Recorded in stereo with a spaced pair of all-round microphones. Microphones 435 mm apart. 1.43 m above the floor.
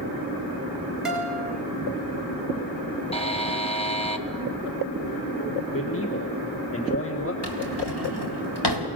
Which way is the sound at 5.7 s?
30° left (ahead or behind).